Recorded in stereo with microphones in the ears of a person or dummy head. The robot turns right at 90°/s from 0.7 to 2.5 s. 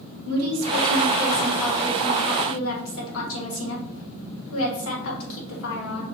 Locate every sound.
0.2 s a woman speaking: 90° right, 1.4 m; by 6.0 s 70° left, 1.4 m